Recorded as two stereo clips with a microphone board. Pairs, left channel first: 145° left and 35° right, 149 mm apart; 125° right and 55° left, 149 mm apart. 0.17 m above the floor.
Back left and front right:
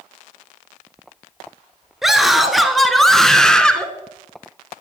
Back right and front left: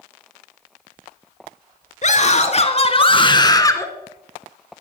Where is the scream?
120° right, 2 m; by 3.9 s 145° right, 1.4 m.